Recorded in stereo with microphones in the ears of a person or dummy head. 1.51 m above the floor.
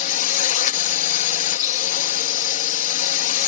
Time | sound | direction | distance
0.0 | a drone | 50° left (ahead or behind) | ?